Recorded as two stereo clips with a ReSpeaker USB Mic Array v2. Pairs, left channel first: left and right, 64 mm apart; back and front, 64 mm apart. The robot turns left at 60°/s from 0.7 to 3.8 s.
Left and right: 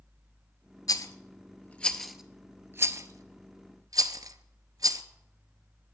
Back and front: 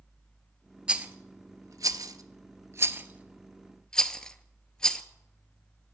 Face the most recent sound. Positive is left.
turn(degrees=-100)